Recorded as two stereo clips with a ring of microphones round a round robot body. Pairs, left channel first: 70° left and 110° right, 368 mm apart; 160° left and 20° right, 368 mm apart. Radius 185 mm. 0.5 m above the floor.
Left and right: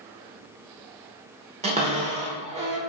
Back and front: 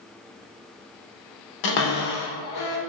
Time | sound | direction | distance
1.6 | a cupboard door | 175° left | 1.0 m